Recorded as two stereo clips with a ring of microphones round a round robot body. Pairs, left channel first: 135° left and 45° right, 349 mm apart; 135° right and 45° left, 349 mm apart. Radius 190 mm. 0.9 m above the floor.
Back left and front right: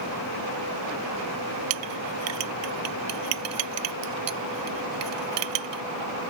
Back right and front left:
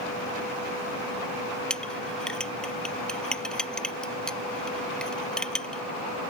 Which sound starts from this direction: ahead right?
A clink, at 1.7 s.